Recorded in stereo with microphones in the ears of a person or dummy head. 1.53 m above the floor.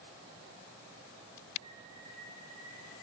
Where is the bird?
30° left (ahead or behind), 2.5 m.